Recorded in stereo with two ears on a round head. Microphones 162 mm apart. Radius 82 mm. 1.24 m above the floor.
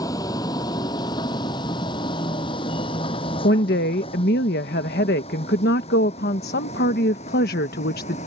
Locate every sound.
0.0 s a vehicle: 20° left (ahead or behind); by 8.3 s 35° left (ahead or behind)
3.4 s a woman speaking: 60° left (ahead or behind)